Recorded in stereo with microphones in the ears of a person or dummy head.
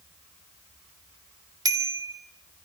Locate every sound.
1.6 s a bicycle bell: 20° right (ahead or behind), 3.5 m